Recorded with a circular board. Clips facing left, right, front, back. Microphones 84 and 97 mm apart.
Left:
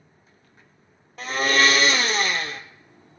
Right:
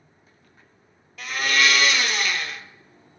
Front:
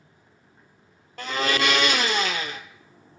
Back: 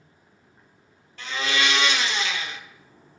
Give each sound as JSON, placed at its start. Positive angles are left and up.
{"t": 1.2, "sound": "a blender", "azimuth_deg": 40, "distance_m": 0.5}